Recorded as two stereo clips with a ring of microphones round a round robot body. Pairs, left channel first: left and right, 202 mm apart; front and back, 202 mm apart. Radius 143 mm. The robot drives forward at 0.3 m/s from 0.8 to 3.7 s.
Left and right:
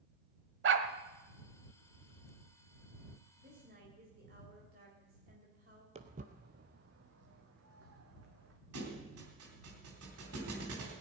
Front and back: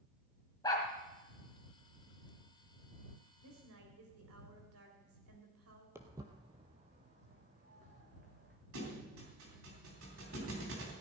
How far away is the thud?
About 3 m.